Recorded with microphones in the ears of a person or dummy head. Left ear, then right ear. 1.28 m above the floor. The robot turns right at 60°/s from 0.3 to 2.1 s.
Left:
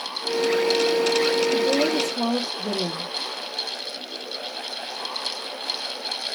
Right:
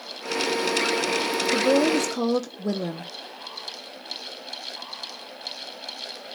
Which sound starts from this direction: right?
A woman speaking, at 1.5 s.